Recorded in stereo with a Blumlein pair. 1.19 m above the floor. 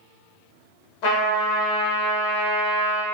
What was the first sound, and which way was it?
A trumpet, 45° left.